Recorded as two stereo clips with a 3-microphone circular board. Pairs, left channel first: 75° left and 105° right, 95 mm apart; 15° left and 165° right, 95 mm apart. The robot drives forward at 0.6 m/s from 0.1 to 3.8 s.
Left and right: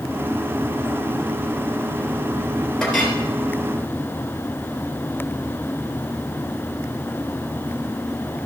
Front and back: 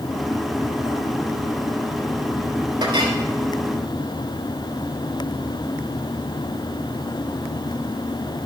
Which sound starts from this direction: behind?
A clink, at 2.8 s.